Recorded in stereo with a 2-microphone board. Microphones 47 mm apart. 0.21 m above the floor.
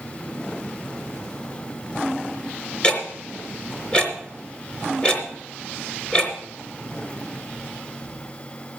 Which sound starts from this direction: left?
Ticking, at 2.8 s.